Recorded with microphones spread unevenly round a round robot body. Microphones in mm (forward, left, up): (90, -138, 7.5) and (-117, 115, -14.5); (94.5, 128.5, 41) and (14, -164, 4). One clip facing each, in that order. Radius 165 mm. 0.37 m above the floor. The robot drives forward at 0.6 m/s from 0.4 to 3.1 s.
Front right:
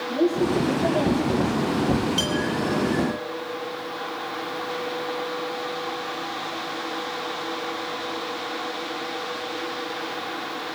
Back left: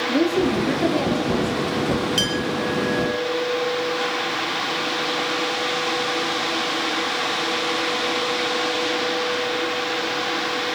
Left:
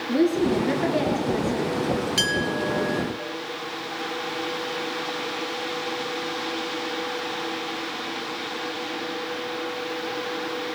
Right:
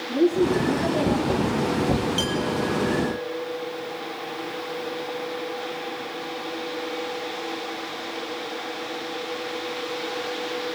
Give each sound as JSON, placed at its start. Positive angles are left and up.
{"t": 0.1, "sound": "a woman speaking", "azimuth_deg": 110, "distance_m": 6.0}
{"t": 2.2, "sound": "a clink", "azimuth_deg": 75, "distance_m": 5.0}